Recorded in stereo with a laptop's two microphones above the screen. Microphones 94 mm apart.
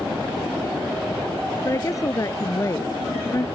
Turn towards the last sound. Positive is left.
turn(degrees=35)  # may be behind; listen again after turning